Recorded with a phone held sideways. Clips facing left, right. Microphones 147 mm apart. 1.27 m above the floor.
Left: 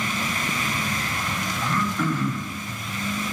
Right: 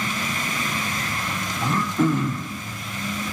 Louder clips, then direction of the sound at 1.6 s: Right 5 dB; 20° right (ahead or behind).